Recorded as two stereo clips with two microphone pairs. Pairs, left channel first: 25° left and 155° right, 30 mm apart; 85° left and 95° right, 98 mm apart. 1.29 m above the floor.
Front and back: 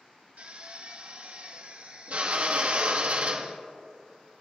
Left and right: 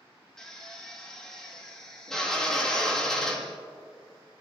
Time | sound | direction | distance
0.4 | a drill | 170° left | 2 m